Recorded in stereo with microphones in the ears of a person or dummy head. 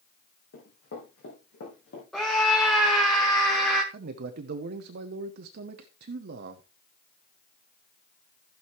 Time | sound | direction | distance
0.5 | running footsteps | 55° left (ahead or behind) | 4.5 m
2.1 | a scream | 5° left (ahead or behind) | 1.5 m
3.9 | a man speaking | 55° right (ahead or behind) | 0.9 m